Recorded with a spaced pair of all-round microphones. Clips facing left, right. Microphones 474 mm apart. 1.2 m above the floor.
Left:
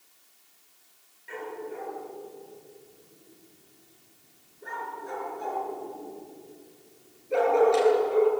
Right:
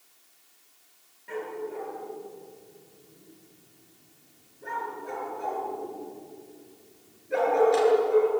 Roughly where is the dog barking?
Right.